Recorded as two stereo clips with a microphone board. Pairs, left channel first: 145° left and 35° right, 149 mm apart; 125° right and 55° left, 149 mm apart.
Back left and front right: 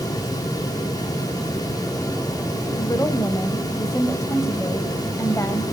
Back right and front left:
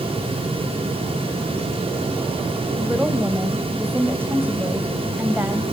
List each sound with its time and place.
2.8 s a woman speaking: 105° left, 1.3 m